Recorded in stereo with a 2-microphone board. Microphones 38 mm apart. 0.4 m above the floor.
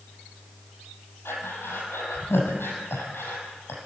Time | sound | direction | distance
1.2 | breathing | 85° left | 6.5 m